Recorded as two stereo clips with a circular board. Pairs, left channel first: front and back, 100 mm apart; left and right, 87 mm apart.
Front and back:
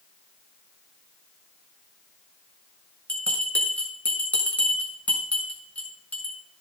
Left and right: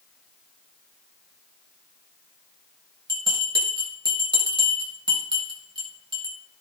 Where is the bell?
75° right, 4.5 m.